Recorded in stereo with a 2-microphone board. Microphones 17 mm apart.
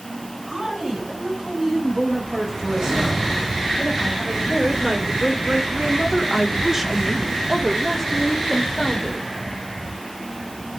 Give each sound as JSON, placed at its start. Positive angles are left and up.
{"t": 0.5, "sound": "a woman speaking", "side_deg": -40, "distance_m": 5.5}